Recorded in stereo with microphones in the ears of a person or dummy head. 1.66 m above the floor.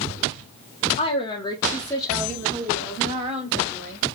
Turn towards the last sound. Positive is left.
turn(degrees=-35)  # may be behind; listen again after turning